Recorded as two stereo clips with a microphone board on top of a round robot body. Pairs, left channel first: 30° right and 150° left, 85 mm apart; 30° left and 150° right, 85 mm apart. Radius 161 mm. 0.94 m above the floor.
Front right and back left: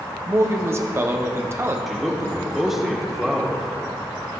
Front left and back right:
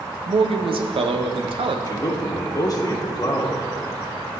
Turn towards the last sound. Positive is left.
turn(degrees=65)